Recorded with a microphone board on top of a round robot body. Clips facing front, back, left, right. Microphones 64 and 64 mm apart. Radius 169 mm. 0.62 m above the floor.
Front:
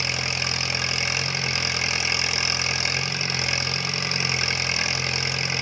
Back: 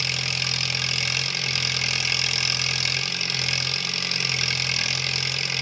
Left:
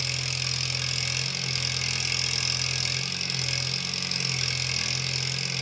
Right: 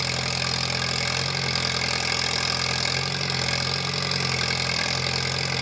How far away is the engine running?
About 0.7 m.